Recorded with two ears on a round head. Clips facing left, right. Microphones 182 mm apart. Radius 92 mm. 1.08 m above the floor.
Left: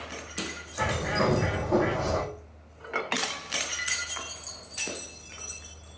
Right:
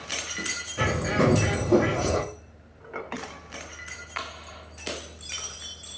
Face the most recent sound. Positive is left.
turn(degrees=-35)  # may be behind; listen again after turning